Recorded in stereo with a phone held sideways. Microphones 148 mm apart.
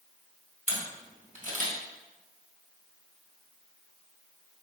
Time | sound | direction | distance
0.7 | a camera shutter | 60° right (ahead or behind) | 2.5 m